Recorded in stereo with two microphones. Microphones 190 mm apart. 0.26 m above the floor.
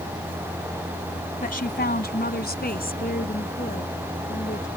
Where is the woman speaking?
50° left (ahead or behind); by 4.7 s 40° left (ahead or behind).